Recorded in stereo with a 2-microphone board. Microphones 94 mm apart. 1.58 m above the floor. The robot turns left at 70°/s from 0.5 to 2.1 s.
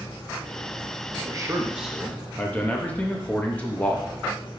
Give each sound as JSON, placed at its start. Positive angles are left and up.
{"t": 1.2, "sound": "a man speaking", "azimuth_deg": -130, "distance_m": 1.0}